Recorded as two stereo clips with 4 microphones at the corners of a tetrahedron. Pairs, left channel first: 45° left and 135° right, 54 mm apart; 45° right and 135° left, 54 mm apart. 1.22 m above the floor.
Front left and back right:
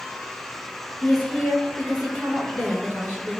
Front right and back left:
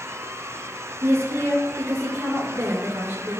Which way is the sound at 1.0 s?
95° left.